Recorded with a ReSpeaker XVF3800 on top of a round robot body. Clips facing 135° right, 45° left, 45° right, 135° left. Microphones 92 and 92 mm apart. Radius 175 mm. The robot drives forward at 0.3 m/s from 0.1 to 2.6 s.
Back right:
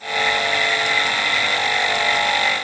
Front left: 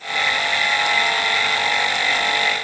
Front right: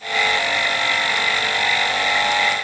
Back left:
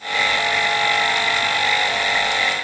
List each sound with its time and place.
Only background noise.